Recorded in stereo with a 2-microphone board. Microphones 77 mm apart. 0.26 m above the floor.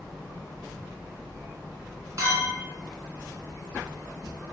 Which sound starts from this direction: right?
A clink, at 2.2 s.